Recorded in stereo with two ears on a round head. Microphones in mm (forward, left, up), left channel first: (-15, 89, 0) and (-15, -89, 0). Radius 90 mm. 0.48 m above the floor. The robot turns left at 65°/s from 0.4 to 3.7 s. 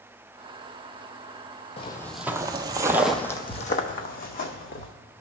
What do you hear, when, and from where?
1.8 s footsteps: 30° left (ahead or behind), 0.6 m; by 4.9 s 50° left (ahead or behind), 1.5 m